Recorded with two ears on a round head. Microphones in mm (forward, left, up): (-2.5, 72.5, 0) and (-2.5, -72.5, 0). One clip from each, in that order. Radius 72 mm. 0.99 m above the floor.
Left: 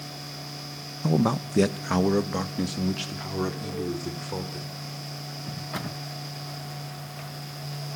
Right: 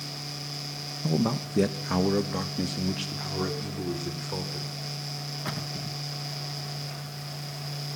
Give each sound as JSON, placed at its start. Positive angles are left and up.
{"t": 1.0, "sound": "a man speaking", "side_deg": 40, "distance_m": 0.7}